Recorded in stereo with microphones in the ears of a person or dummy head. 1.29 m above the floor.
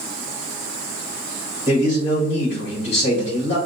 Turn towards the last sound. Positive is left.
turn(degrees=45)  # may be behind; listen again after turning